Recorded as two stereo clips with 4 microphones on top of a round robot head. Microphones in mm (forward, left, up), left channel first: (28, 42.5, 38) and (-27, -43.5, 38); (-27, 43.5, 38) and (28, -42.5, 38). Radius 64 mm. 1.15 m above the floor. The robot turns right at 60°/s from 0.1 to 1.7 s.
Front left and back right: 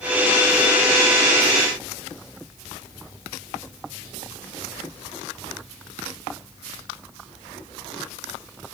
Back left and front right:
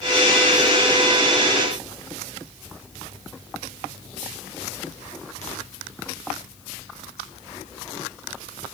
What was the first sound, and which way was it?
Only background noise.